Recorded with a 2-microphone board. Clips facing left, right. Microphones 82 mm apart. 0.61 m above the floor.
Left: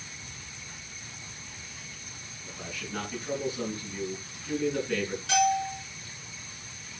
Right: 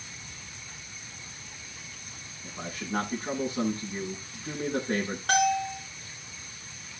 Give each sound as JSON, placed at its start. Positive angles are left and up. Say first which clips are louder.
{"t": 2.4, "sound": "a man speaking", "louder": "right 4 dB", "side_deg": -45, "distance_m": 7.0}
{"t": 5.3, "sound": "a bell", "louder": "even", "side_deg": -50, "distance_m": 8.0}